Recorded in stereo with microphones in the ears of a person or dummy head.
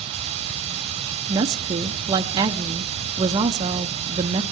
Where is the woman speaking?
20° right (ahead or behind), 0.5 m.